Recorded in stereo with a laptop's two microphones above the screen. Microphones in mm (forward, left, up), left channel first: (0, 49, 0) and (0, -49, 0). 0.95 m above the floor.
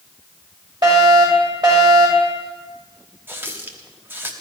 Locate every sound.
0.8 s a fire alarm: 45° right (ahead or behind), 7.5 m
3.3 s a running tap: 20° right (ahead or behind), 1.0 m